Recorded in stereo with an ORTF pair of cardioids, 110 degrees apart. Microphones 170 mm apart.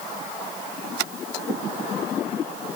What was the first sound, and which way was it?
Only background noise.